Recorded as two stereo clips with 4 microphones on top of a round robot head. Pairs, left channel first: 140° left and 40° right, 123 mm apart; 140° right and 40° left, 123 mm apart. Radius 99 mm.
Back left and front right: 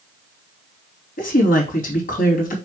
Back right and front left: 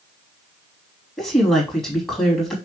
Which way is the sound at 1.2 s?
130° left.